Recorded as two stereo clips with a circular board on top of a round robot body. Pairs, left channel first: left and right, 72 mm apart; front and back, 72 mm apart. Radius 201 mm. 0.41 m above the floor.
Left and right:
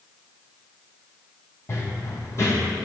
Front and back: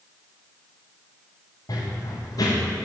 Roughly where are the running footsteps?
Ahead left.